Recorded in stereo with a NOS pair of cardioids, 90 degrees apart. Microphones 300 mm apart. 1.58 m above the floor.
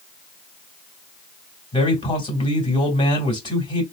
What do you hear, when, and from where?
1.7 s a man speaking: 15° left, 2.5 m